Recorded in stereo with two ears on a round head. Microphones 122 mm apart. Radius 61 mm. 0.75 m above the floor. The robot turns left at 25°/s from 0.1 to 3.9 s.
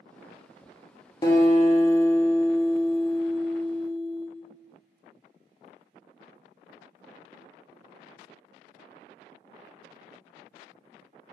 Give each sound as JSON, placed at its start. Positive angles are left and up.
{"t": 1.2, "sound": "a guitar", "azimuth_deg": 30, "distance_m": 1.3}